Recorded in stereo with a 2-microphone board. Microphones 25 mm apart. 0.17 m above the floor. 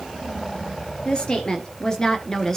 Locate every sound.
1.1 s a woman speaking: 40° left (ahead or behind), 2.5 m; by 2.6 s 20° left (ahead or behind), 1.7 m